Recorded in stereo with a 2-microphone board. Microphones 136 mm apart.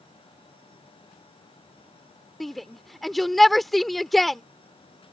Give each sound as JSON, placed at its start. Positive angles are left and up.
{"t": 2.4, "sound": "a shout", "side_deg": 0}